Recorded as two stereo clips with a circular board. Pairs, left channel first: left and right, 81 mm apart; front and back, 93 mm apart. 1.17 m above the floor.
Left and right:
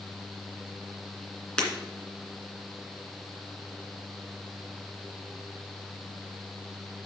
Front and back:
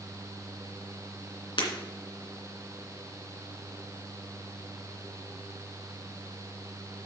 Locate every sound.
1.6 s breaking glass: 15° left, 2.5 m